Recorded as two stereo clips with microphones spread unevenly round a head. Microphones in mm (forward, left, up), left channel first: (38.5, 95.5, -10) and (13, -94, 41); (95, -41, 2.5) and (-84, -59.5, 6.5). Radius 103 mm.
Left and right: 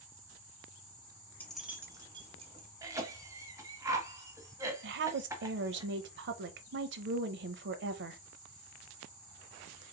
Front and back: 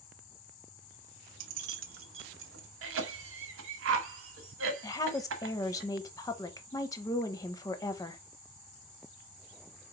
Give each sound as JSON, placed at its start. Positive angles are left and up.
{"t": 1.4, "sound": "keys jangling", "azimuth_deg": 165, "distance_m": 0.6}
{"t": 2.8, "sound": "a cough", "azimuth_deg": -175, "distance_m": 1.2}
{"t": 4.8, "sound": "a woman speaking", "azimuth_deg": -65, "distance_m": 0.7}